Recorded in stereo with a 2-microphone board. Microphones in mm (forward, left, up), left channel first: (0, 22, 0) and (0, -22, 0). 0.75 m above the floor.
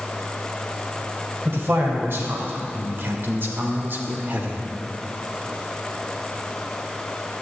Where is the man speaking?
60° right (ahead or behind), 3 m; by 4.6 s 40° right (ahead or behind), 1.7 m.